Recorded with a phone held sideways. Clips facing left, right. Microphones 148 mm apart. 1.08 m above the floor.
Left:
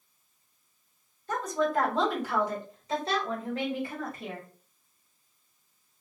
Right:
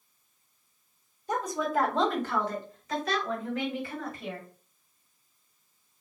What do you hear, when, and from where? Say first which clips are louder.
1.3 s a woman speaking: left 1 dB; 20° right (ahead or behind), 1.4 m; by 4.5 s 50° left (ahead or behind), 2 m